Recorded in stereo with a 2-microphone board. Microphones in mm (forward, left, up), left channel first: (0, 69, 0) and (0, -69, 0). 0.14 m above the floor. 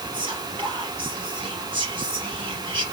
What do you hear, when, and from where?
0.1 s whispering: 40° right (ahead or behind), 4 m